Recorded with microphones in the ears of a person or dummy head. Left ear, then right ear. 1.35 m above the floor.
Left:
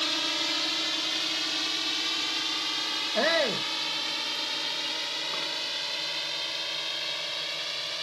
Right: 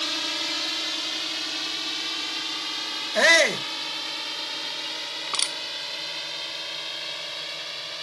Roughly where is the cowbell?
I don't hear a cowbell.